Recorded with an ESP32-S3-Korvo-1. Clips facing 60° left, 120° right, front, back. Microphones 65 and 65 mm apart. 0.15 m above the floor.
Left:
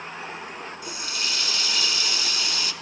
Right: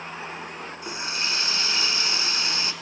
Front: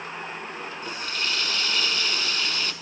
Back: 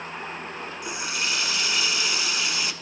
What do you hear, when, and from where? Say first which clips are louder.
0.8 s a running tap: right 4 dB, back 1 dB; 115° right, 0.8 m